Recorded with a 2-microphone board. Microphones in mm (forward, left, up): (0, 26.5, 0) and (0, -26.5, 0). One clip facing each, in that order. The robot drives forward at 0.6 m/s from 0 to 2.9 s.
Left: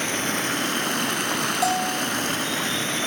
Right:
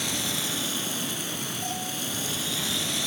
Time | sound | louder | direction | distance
0.0 | running water | left 6 dB | 40° left (ahead or behind) | 1.3 m
1.6 | a bell | left 10 dB | 80° left | 1.5 m